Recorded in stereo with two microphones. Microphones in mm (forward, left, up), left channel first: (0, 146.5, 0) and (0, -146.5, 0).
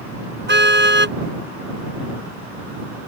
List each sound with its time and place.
0.5 s a car horn: 40° right (ahead or behind)